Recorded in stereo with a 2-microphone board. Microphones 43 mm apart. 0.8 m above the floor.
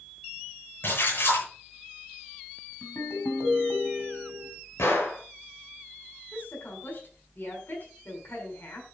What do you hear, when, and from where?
0.8 s a splash: 55° left (ahead or behind), 9 m
2.8 s a ringtone: 75° left (ahead or behind), 3.5 m
4.8 s a gunshot: 85° left, 5.5 m
6.3 s a woman speaking: 50° left (ahead or behind), 6.5 m